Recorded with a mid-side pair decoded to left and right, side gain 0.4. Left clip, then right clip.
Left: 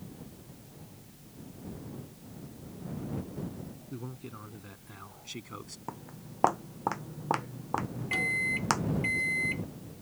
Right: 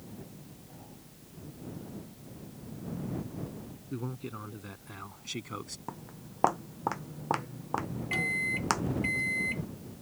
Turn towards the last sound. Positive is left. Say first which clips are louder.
# left 1 dB
turn(degrees=10)